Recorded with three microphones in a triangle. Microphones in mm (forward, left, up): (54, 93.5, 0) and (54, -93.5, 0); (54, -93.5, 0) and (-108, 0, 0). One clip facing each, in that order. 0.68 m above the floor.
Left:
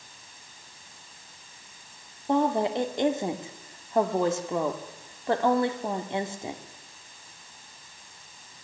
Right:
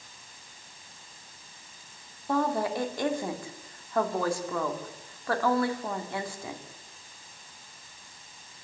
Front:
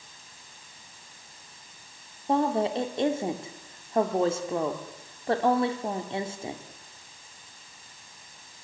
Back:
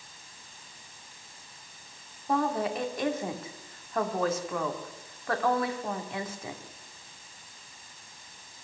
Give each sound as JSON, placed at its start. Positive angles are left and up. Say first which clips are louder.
{"t": 2.3, "sound": "a woman speaking", "louder": "left 3 dB, front 3 dB", "azimuth_deg": 25, "distance_m": 2.0}